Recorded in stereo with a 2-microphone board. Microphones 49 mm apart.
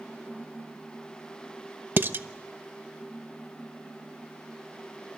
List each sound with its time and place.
2.0 s dishes clattering: 45° right (ahead or behind), 0.9 m